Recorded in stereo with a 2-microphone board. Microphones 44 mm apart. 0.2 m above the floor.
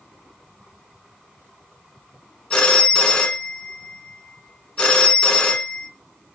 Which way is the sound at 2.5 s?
20° left (ahead or behind).